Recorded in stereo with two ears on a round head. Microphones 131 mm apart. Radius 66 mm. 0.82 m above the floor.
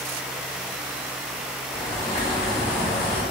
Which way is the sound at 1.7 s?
45° left (ahead or behind).